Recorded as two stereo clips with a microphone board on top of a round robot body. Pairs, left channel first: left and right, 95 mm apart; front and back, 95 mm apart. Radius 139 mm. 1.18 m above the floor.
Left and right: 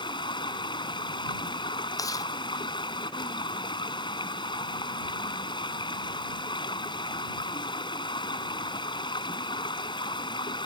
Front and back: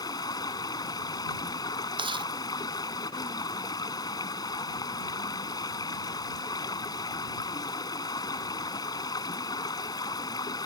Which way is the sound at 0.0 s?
50° left.